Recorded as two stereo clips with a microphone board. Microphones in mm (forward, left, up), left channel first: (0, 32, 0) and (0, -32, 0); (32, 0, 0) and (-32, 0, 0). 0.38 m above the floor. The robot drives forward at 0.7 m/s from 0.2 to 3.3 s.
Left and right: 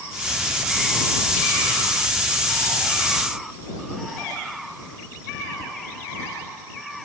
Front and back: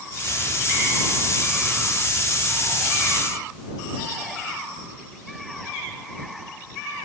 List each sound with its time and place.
Only background noise.